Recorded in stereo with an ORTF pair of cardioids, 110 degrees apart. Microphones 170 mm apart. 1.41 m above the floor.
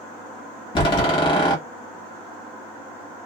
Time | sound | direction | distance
0.8 | a door slam | 30° left | 1.3 m